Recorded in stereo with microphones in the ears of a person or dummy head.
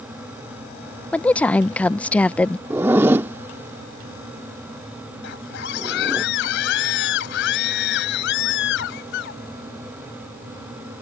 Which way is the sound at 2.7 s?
10° right (ahead or behind).